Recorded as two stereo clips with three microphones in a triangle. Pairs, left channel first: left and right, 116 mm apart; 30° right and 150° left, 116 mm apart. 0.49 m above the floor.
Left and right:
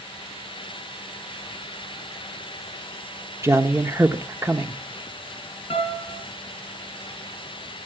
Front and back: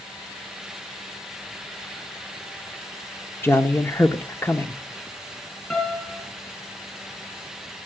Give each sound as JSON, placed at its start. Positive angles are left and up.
{"t": 3.4, "sound": "a man speaking", "azimuth_deg": -65, "distance_m": 0.8}
{"t": 5.7, "sound": "a piano", "azimuth_deg": 50, "distance_m": 3.0}